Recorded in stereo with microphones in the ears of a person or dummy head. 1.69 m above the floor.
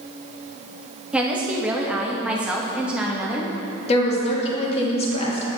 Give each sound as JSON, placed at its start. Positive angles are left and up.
{"t": 1.1, "sound": "a woman speaking", "side_deg": -5, "distance_m": 0.9}
{"t": 3.9, "sound": "a woman speaking", "side_deg": 40, "distance_m": 1.5}